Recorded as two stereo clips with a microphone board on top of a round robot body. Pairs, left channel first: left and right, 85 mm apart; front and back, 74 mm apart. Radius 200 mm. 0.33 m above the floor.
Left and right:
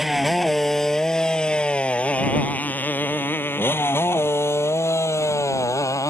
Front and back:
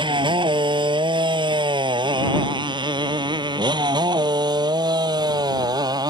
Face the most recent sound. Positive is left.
turn(degrees=145)